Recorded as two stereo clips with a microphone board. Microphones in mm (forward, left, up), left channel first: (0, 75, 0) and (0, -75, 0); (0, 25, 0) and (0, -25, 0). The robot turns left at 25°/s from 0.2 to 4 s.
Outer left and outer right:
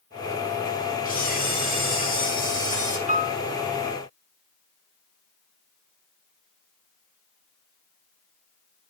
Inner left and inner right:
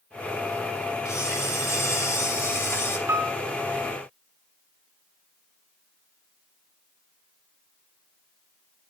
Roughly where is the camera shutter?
Left.